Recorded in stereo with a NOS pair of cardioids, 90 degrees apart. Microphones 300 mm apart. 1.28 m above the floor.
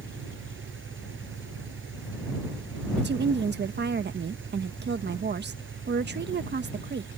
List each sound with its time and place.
0.0 s an engine running: 40° right
3.0 s a woman speaking: 35° right